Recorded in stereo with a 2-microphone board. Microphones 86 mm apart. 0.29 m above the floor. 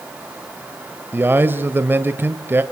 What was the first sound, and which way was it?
A man speaking, 25° right (ahead or behind).